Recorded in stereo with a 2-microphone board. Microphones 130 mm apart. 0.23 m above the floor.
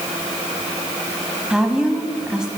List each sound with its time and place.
1.5 s a woman speaking: 5° right (ahead or behind), 1.3 m